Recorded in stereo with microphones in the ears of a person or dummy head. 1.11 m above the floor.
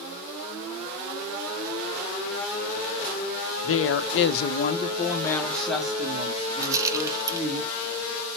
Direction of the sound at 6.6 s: 20° right (ahead or behind).